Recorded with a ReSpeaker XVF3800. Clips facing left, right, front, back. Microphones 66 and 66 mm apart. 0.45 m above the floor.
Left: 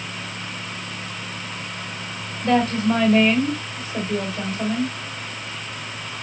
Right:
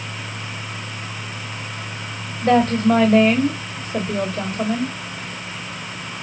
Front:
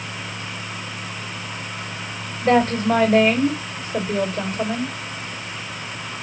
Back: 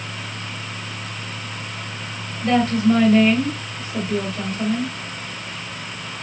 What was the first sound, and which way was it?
A woman speaking, 50° right.